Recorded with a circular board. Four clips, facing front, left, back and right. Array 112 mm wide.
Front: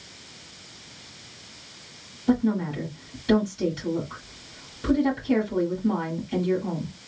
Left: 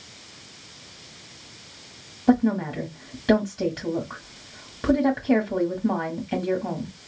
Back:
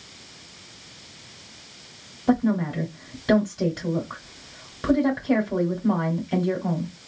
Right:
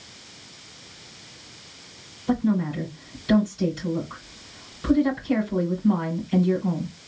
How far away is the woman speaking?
About 1.6 m.